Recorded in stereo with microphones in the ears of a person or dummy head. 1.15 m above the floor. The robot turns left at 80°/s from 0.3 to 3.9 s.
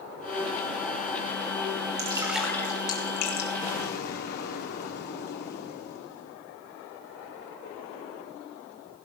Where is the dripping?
30° right (ahead or behind), 2 m; by 3.5 s 75° left (ahead or behind), 2 m.